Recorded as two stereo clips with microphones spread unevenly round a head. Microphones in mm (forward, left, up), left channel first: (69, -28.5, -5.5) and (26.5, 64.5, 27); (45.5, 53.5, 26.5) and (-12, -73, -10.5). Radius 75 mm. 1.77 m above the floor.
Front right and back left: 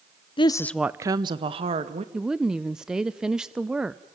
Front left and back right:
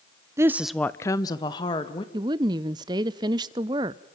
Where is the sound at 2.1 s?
175° left, 0.7 m.